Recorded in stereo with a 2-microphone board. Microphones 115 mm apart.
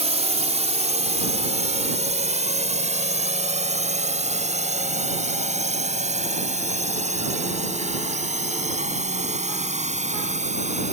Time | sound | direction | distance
0.0 | a drone | 70° right (ahead or behind) | ?